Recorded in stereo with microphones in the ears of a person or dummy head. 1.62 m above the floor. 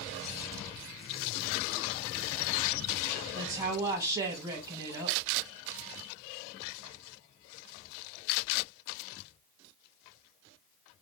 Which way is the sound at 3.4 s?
20° right (ahead or behind).